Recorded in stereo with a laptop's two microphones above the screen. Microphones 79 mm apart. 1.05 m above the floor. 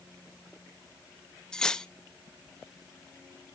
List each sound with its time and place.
1.5 s cutlery clinking: 10° left (ahead or behind), 0.6 m